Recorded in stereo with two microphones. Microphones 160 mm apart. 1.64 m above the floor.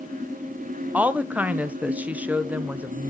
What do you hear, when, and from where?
0.9 s a woman speaking: 10° right (ahead or behind), 0.7 m